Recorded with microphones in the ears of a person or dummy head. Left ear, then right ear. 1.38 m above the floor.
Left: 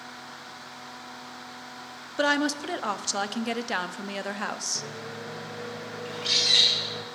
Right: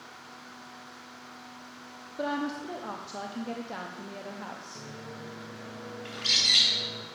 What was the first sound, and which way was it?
A woman speaking, 55° left (ahead or behind).